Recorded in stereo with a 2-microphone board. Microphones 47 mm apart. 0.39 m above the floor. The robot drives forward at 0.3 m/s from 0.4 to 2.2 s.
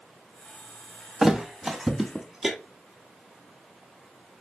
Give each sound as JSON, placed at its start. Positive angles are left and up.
{"t": 1.2, "sound": "a thud", "side_deg": -10, "distance_m": 0.6}